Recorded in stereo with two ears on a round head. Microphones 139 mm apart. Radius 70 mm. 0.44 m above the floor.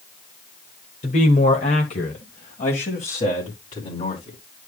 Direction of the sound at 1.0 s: 50° left (ahead or behind).